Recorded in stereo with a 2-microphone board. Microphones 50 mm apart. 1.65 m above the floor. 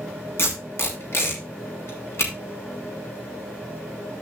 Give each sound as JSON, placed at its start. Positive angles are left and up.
{"t": 0.4, "sound": "tape being pulled", "side_deg": 55, "distance_m": 2.5}